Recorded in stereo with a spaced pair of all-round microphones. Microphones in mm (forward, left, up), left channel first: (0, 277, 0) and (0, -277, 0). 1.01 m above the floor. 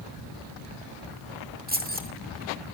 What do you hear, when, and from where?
1.7 s keys jangling: 15° right (ahead or behind), 2 m